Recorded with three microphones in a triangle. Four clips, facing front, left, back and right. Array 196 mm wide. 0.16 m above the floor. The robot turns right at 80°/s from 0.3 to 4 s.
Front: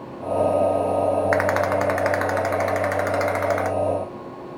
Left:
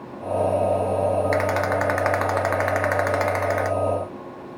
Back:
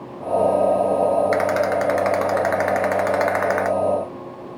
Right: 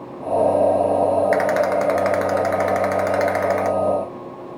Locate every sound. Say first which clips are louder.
1.3 s a rattle: right 4 dB, back 1 dB; 5° left, 0.9 m; by 3.7 s 165° right, 0.9 m